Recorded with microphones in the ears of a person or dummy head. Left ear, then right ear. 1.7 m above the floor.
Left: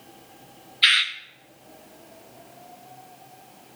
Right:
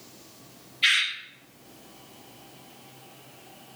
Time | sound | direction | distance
0.8 | a bird | 15° left (ahead or behind) | 0.7 m